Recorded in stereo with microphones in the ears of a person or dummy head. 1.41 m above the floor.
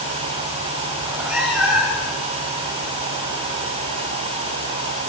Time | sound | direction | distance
1.0 | a cat meowing | 5° right (ahead or behind) | 7 m